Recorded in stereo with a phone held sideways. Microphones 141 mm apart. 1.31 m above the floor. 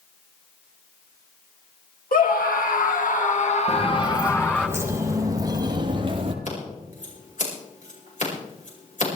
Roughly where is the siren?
No siren in this recording.